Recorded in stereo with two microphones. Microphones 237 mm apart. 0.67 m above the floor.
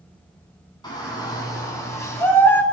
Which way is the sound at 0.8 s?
20° left (ahead or behind).